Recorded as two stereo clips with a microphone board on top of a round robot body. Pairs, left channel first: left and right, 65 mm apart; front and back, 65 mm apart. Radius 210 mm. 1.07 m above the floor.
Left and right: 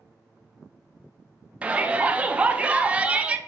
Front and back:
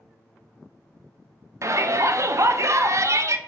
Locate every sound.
1.6 s a shout: 155° right, 0.6 m